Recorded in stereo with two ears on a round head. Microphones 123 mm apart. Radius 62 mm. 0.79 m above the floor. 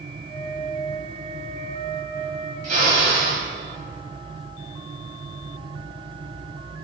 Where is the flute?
55° right (ahead or behind), 2 m.